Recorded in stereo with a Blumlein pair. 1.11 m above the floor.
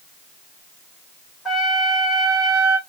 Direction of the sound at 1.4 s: 20° left.